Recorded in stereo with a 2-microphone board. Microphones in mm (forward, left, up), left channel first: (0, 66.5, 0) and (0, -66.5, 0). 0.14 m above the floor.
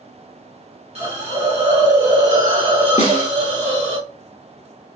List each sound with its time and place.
0.9 s a hiss: 50° right (ahead or behind), 1.3 m
3.0 s a snare drum: 50° left (ahead or behind), 0.6 m